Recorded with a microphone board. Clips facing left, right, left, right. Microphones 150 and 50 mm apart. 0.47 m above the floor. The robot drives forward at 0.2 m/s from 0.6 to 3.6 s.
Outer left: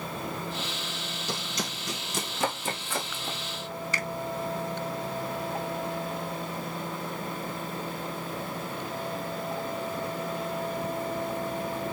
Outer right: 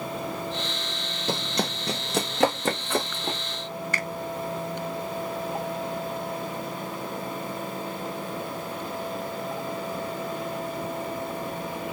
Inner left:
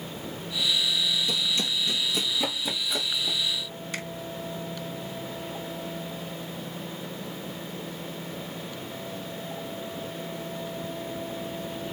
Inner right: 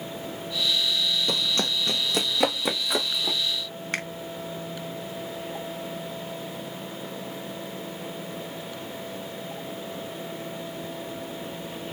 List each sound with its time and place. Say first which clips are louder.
1.3 s running footsteps: outer right 8 dB, inner right 2 dB; 55° right (ahead or behind), 0.9 m; by 3.4 s 70° right (ahead or behind), 2.0 m
3.9 s a finger snap: outer right 1 dB, inner right 5 dB; 60° right (ahead or behind), 1.9 m